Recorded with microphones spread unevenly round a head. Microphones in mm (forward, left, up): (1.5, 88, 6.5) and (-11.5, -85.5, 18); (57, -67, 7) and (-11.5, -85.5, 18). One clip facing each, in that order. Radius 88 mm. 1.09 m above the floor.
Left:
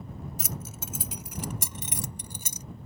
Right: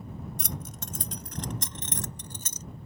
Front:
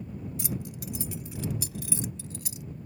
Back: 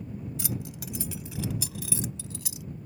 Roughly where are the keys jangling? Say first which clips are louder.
Even, front 1 dB; behind.